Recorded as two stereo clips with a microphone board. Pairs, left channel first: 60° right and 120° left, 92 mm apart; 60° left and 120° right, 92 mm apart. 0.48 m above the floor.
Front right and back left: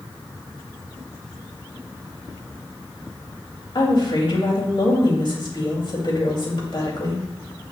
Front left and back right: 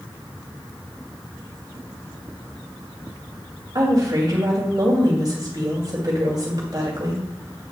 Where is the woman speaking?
80° right, 2.5 m.